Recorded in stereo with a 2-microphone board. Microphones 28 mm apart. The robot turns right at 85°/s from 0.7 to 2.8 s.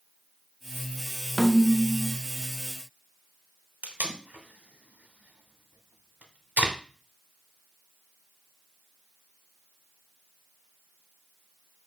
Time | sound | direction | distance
1.4 | a snare drum | 10° right (ahead or behind) | 0.5 m
3.8 | tape being pulled | 75° right (ahead or behind) | 0.8 m